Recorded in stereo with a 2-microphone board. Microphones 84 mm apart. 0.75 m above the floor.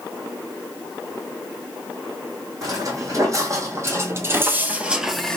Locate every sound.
2.6 s footsteps: 40° right (ahead or behind), 2 m; by 5.4 s 10° left (ahead or behind), 0.7 m